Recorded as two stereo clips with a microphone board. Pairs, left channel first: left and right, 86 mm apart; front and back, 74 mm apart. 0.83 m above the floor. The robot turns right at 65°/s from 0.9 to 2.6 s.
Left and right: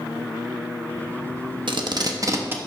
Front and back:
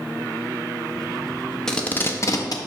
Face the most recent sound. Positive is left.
turn(degrees=-20)